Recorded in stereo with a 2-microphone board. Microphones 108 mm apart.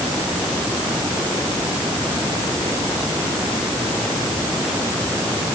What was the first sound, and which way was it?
Only background noise.